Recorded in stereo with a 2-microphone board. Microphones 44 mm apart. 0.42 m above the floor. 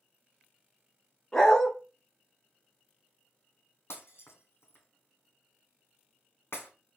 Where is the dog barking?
10° left (ahead or behind), 1.6 m.